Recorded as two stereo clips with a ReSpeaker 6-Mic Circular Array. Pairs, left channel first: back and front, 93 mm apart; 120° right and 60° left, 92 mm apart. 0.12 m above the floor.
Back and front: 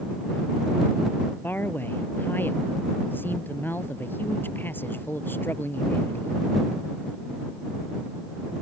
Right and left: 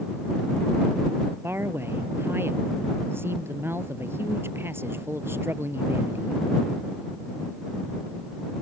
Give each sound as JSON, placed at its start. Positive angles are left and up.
{"t": 1.4, "sound": "a man speaking", "azimuth_deg": 120}